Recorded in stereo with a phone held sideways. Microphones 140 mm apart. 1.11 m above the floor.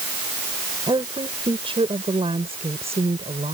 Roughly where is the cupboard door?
No cupboard door in this recording.